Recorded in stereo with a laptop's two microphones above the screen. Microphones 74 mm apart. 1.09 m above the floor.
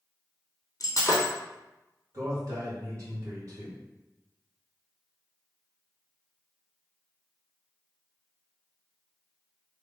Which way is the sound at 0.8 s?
45° left (ahead or behind).